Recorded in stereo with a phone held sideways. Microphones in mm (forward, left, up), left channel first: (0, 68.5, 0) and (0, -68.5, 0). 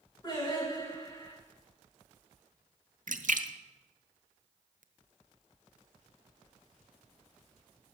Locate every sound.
0.2 s singing: 30° left (ahead or behind), 10 m
3.1 s a splash: 65° right (ahead or behind), 1.1 m